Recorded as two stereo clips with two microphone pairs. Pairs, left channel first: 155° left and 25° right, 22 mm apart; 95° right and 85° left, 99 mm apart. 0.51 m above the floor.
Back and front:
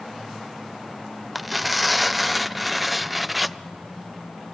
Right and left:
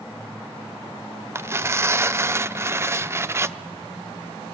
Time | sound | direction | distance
1.4 | tearing paper | 50° left | 0.5 m